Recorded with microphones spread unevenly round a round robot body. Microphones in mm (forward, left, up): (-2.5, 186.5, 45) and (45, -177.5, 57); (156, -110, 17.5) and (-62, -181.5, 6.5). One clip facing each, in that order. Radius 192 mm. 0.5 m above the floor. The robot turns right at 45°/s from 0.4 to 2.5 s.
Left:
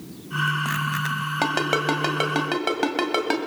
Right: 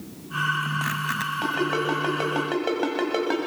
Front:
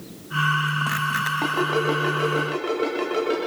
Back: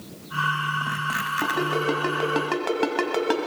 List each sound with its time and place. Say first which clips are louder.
1.4 s a ringtone: even, front 2 dB; 110° left, 1.8 m; by 3.4 s 160° left, 1.8 m